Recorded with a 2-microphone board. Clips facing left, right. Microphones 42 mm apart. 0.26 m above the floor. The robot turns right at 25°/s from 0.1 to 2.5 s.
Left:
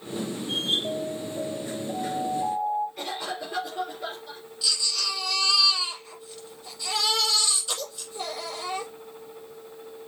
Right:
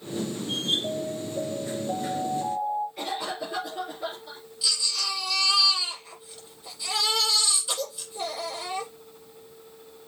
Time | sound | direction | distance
0.8 | an alarm | 80° right | 2.5 m
3.0 | a cough | 5° right (ahead or behind) | 5 m
4.6 | a baby crying | 10° right (ahead or behind) | 6.5 m